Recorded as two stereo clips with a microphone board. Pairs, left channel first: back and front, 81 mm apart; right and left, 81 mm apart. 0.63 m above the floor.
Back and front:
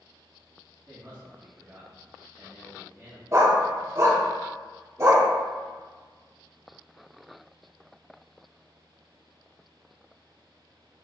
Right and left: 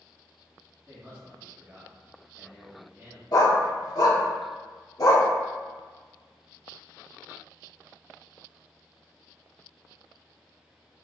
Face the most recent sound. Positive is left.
turn(degrees=-55)